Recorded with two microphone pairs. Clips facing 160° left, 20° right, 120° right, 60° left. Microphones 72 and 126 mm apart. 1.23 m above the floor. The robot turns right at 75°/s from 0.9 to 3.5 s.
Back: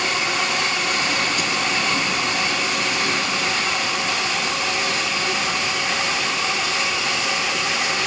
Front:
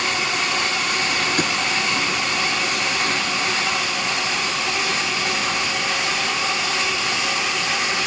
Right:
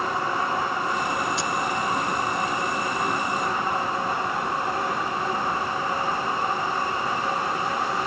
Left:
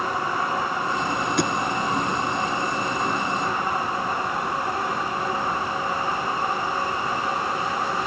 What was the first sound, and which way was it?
A thud, 25° left.